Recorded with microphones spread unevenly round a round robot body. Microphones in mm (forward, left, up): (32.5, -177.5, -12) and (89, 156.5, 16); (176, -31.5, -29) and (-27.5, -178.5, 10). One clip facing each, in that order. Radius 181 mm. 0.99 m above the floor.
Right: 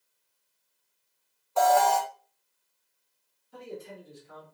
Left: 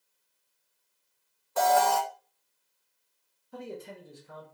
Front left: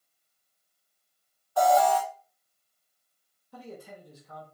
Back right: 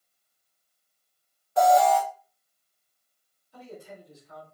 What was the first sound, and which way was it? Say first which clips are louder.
An alarm: right 2 dB, back right 2 dB; 145° left.